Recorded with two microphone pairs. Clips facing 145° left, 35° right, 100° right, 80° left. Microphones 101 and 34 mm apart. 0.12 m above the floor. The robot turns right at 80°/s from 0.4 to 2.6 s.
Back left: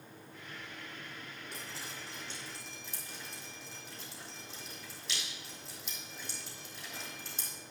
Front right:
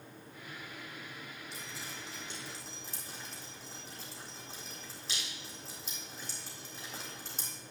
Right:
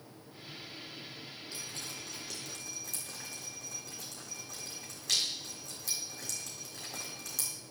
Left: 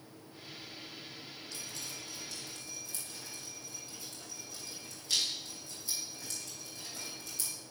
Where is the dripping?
175° right, 4 m; by 7.5 s 90° right, 4 m.